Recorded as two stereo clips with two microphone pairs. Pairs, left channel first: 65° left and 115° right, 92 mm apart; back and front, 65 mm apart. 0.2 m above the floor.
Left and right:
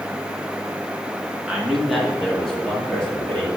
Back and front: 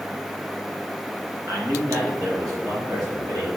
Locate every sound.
1.5 s a man speaking: 35° right, 2.5 m; by 3.5 s 5° right, 5 m